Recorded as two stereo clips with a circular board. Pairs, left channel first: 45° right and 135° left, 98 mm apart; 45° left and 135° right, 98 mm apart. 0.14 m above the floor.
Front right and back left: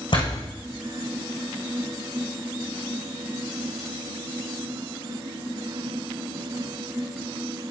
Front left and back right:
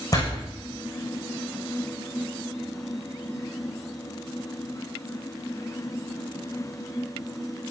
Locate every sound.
0.1 s a door slam: 10° right, 7 m